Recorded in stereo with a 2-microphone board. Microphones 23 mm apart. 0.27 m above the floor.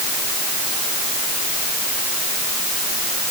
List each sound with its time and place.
Only background noise.